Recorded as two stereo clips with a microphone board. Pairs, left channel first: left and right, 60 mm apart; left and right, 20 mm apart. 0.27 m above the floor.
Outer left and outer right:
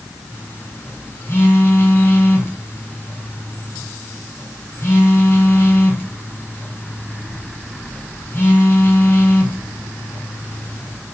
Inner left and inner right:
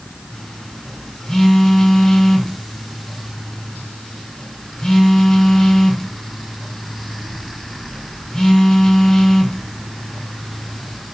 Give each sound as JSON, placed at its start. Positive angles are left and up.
{"t": 0.3, "sound": "a phone buzzing", "side_deg": 35, "distance_m": 3.5}